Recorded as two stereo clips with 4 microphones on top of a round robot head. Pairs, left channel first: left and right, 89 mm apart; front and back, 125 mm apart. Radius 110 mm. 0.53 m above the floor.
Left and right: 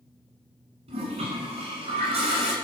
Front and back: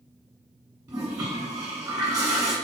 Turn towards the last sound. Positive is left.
turn(degrees=-110)